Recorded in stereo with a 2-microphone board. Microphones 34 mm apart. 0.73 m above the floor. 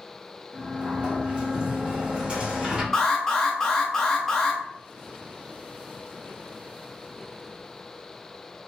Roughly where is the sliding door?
Right.